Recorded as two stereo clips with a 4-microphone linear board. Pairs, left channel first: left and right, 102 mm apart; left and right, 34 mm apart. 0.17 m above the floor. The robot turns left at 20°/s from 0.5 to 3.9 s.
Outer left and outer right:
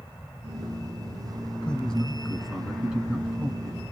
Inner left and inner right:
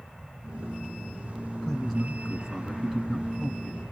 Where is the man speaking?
15° left, 1.6 m; by 3.8 s 30° right, 1.6 m.